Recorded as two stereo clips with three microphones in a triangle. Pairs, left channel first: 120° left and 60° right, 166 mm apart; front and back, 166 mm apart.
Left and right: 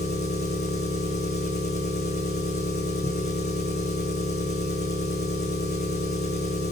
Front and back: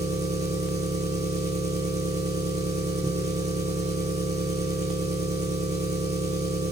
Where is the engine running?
130° left, 2 m.